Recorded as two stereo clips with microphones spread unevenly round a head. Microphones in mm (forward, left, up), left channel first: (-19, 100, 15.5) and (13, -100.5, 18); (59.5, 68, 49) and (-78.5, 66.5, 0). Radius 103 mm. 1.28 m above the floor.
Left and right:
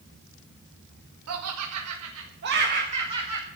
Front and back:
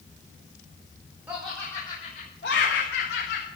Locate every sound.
1.3 s laughter: 95° right, 2.0 m; by 3.5 s 10° right, 2.5 m